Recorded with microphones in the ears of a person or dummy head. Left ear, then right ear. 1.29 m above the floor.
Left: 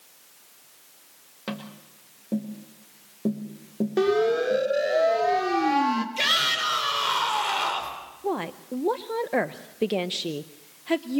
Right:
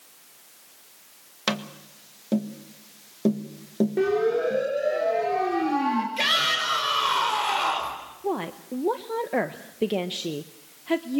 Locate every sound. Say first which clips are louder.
1.5 s tapping: right 9 dB; 50° right (ahead or behind), 1.8 m
4.0 s a siren: left 2 dB; 50° left (ahead or behind), 5.5 m; by 6.1 s 35° left (ahead or behind), 3 m
6.2 s a shout: even; 5° left (ahead or behind), 4.5 m
8.2 s a woman speaking: even; 15° left (ahead or behind), 0.6 m